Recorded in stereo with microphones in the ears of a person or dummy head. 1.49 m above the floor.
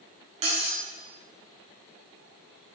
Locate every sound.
0.4 s cutlery clinking: 30° right (ahead or behind), 1.4 m